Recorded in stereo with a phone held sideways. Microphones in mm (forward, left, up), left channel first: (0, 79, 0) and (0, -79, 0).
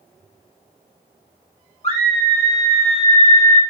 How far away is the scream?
About 1.0 m.